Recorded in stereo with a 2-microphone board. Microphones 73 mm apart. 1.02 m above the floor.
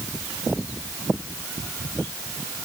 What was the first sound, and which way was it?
Only background noise.